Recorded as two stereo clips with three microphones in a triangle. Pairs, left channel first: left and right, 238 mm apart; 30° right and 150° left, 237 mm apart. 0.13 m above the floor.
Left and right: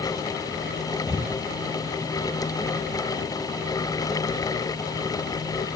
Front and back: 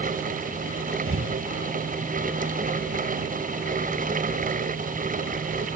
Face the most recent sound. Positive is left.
turn(degrees=160)